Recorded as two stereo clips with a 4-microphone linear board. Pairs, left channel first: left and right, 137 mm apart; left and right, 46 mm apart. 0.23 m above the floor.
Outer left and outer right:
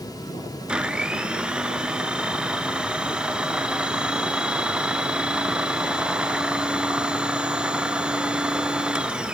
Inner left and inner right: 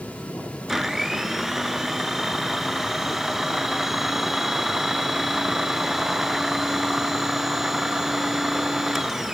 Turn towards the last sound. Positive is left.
turn(degrees=-5)  # may be behind; listen again after turning